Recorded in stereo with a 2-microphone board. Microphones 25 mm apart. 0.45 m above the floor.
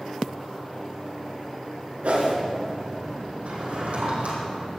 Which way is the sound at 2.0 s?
75° right (ahead or behind).